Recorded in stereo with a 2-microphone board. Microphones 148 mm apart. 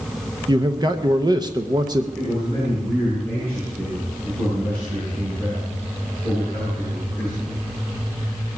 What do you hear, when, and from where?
0.5 s a man speaking: 30° right (ahead or behind), 0.7 m
2.1 s a man speaking: 40° right (ahead or behind), 8.5 m